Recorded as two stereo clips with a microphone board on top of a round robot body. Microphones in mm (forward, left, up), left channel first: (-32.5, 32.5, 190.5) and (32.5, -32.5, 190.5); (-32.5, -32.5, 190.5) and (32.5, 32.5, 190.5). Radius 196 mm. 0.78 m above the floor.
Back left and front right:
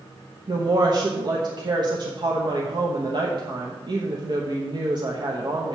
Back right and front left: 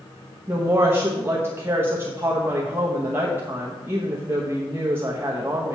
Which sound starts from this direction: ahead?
A woman speaking, at 0.5 s.